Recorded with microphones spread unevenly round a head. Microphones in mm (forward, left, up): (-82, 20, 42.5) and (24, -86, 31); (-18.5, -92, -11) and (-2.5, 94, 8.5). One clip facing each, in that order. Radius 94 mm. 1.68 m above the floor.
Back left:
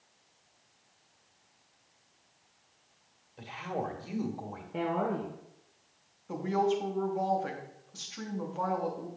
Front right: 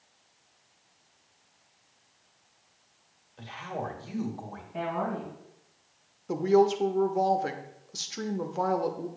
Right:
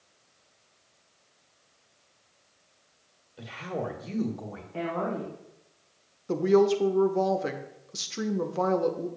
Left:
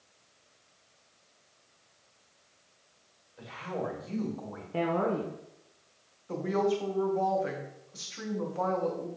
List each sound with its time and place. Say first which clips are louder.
3.4 s a woman speaking: even, right 2 dB; 145° right, 1.4 m
4.7 s a woman speaking: even, left 2 dB; 110° left, 1.2 m
6.3 s a woman speaking: front right 7 dB, right 7 dB; 85° right, 0.8 m